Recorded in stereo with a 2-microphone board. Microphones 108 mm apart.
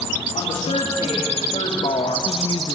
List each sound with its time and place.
0.3 s a woman speaking: 85° left, 4 m; by 2.8 s 35° left (ahead or behind), 1.2 m